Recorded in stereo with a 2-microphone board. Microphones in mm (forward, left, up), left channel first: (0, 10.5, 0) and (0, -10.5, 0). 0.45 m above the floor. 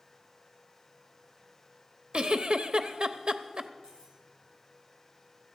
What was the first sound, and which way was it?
A giggle, 45° right (ahead or behind).